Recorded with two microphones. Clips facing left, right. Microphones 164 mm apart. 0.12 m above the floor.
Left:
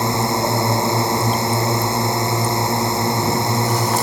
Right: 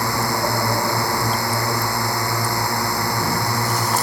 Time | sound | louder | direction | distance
0.0 | a drone | left 3 dB | 20° left (ahead or behind) | ?